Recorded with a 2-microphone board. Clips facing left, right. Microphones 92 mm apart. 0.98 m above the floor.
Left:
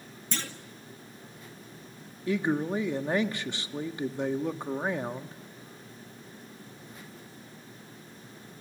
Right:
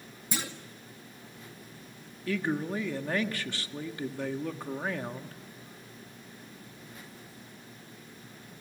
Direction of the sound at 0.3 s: 10° right (ahead or behind).